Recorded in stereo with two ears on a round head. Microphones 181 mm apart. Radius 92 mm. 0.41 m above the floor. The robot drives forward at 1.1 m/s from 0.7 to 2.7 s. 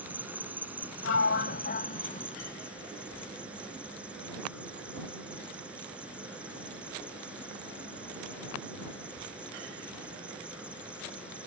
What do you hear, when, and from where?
0.0 s an insect: 10° right (ahead or behind); by 11.5 s 5° right (ahead or behind)
1.0 s a sliding door: 70° left (ahead or behind); by 2.4 s 35° left (ahead or behind)